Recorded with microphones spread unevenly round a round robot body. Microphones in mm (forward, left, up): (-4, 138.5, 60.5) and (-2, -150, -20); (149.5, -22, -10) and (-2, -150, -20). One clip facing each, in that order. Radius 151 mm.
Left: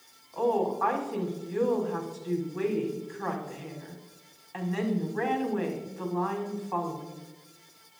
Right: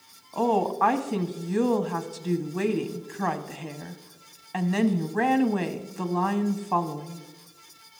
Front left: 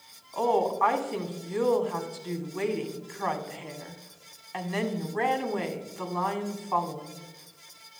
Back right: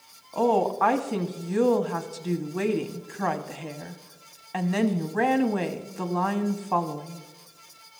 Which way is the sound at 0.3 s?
100° right.